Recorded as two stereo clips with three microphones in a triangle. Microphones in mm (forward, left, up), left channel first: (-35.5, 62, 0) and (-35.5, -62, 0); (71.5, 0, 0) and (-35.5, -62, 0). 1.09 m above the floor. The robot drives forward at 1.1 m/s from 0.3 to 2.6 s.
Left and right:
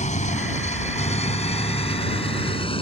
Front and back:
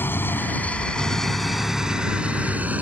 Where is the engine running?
105° left; by 2.8 s 135° left.